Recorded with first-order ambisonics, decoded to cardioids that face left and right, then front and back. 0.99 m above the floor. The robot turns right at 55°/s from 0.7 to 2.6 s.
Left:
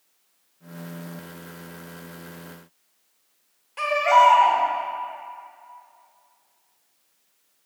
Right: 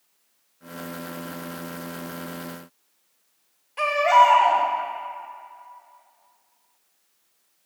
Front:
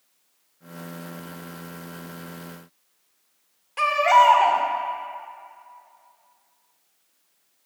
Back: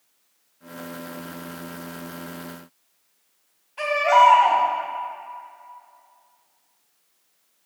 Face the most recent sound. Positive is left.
turn(degrees=15)